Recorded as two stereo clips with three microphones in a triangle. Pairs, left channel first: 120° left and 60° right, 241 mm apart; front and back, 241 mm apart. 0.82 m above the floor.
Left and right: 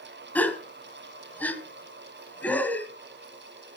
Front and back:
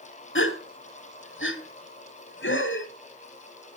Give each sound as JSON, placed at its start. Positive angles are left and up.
{"t": 0.3, "sound": "a gasp", "azimuth_deg": 35, "distance_m": 1.3}